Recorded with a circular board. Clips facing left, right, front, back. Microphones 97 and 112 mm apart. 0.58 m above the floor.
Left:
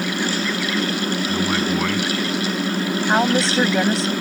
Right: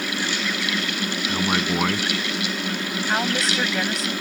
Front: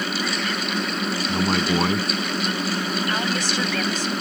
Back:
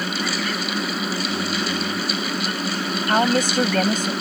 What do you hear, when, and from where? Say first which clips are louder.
1.3 s a man speaking: even, front 3 dB; 15° right
3.1 s a woman speaking: left 6 dB, back 6 dB; 145° left